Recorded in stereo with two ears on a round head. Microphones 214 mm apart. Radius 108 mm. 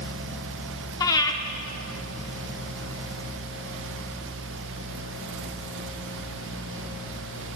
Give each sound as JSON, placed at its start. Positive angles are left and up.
{"t": 1.0, "sound": "breathing", "side_deg": 15, "distance_m": 0.6}